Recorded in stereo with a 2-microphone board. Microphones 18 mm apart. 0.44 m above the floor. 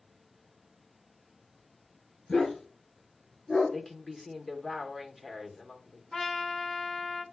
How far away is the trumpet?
About 0.8 m.